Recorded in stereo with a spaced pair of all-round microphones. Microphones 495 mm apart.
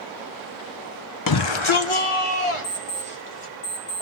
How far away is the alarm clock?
About 3.5 m.